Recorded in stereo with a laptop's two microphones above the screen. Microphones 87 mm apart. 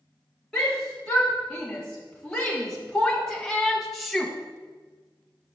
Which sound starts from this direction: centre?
A shout, at 0.5 s.